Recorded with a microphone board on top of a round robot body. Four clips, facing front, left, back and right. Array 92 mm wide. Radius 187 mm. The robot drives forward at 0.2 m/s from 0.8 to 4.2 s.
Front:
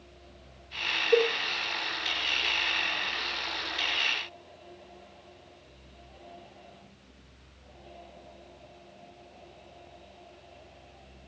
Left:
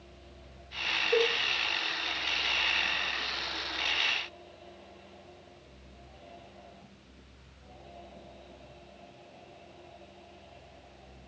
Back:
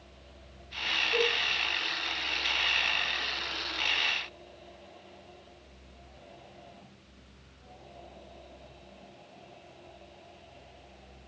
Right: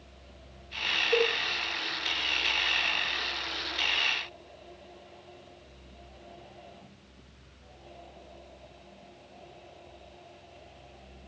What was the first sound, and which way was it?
A cowbell, 20° left.